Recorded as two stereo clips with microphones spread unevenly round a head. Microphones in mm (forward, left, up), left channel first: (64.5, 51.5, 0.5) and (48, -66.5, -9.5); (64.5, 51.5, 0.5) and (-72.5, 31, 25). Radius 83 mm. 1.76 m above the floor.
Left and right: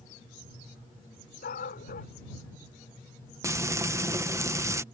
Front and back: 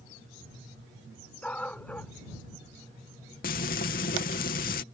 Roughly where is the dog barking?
Left.